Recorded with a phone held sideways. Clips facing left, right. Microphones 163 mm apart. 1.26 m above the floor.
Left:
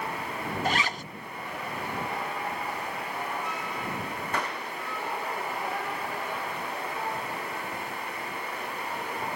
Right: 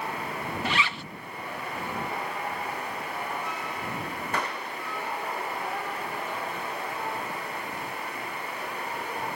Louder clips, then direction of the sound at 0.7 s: Left 2 dB; 40° left (ahead or behind).